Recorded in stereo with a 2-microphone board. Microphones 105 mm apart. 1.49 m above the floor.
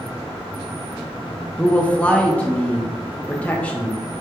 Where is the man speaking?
15° left (ahead or behind), 0.5 m.